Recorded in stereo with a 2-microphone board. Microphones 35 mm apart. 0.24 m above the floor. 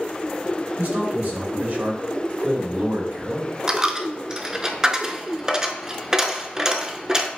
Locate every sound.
0.8 s a man speaking: 50° right (ahead or behind), 2 m
3.7 s a dropped coin: 20° right (ahead or behind), 0.6 m